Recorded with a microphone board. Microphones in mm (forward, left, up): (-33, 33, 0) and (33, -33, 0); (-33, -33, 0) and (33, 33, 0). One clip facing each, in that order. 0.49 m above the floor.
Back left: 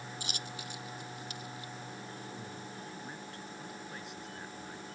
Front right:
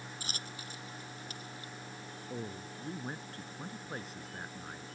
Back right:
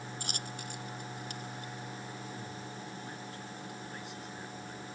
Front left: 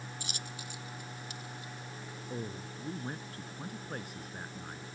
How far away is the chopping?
I don't hear chopping.